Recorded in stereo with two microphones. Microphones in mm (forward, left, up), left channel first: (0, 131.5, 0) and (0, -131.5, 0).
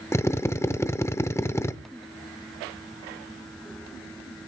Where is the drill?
10° left (ahead or behind), 0.7 m.